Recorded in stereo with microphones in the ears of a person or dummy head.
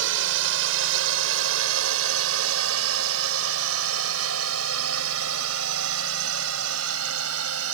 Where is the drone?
70° right (ahead or behind); by 7.8 s 80° right.